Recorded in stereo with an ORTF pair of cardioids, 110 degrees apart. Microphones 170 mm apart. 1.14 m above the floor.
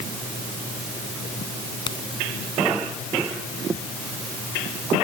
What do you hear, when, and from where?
1.9 s a crack: 30° left